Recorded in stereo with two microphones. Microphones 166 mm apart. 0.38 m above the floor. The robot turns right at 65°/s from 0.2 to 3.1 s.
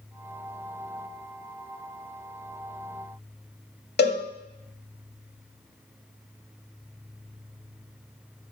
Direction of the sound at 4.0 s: 70° left (ahead or behind).